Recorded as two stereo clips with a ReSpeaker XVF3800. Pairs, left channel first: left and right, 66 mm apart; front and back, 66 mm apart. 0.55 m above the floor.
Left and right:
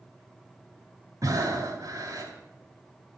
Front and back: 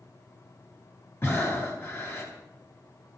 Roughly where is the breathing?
Ahead right.